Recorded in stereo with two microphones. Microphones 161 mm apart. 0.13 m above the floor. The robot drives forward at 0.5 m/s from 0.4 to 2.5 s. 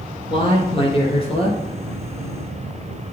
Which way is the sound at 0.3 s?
35° left (ahead or behind).